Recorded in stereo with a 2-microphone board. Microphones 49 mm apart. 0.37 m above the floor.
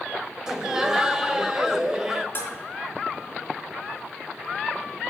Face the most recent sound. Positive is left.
turn(degrees=40)  # may be behind; listen again after turning